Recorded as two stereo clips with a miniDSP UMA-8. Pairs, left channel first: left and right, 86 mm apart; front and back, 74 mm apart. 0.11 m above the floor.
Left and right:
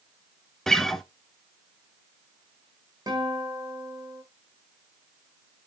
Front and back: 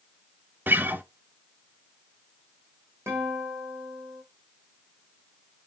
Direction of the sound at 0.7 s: 170° left.